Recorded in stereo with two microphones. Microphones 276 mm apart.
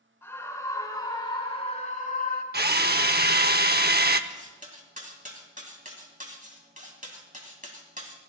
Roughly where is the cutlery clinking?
Right.